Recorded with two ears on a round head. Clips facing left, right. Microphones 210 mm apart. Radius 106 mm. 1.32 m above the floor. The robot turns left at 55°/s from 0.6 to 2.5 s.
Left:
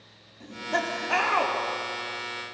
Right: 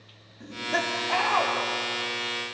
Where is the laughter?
165° right, 4 m; by 1.5 s 145° left, 4 m.